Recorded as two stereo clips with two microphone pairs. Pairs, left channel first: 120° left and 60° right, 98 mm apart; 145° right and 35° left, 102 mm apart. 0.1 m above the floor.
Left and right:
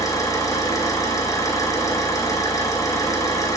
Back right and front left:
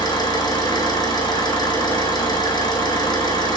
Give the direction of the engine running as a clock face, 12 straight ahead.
6 o'clock.